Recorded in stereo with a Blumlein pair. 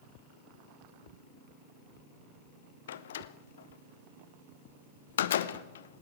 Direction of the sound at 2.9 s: 60° left.